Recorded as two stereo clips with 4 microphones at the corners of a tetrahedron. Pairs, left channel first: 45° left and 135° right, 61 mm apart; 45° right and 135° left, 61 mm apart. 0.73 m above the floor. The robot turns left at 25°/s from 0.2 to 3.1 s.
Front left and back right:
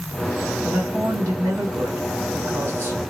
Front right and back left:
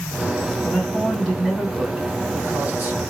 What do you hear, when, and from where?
0.6 s a man speaking: 120° right, 2 m; by 3.0 s straight behind, 2 m